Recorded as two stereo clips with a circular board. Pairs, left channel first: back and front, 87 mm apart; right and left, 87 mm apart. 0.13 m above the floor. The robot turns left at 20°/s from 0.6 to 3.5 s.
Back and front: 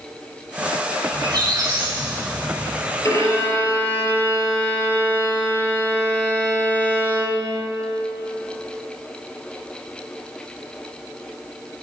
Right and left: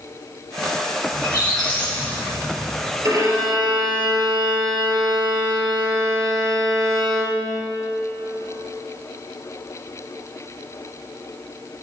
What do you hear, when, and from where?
1.1 s a squeak: 40° right, 3.5 m; by 2.9 s 75° right, 3.5 m
3.0 s a violin: 135° left, 3.5 m; by 7.7 s 125° left, 3.5 m